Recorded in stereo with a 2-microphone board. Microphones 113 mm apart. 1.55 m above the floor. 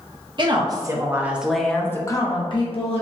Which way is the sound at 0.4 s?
40° right (ahead or behind).